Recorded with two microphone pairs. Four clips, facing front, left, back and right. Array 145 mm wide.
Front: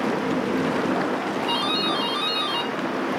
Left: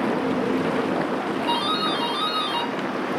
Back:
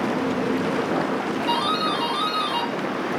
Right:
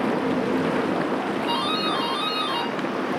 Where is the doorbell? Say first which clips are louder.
Left 1 dB, back 2 dB; 145° left, 4.5 m.